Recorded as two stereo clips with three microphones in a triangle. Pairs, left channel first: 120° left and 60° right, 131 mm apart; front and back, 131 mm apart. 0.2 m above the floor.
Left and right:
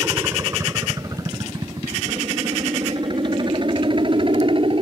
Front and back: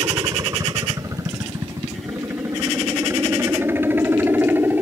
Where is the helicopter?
125° right; by 4.8 s 105° right.